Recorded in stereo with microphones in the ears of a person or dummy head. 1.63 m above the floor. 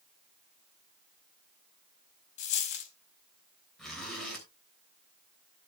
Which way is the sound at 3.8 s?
5° left (ahead or behind).